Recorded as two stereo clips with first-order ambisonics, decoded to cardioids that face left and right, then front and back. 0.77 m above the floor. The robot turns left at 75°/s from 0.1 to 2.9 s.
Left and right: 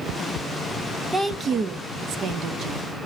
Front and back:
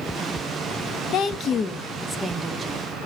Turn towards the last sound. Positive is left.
turn(degrees=-145)